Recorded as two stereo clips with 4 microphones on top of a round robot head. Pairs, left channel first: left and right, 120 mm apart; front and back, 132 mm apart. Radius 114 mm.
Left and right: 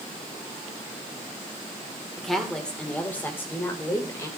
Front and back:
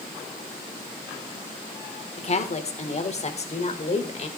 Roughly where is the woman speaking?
Ahead.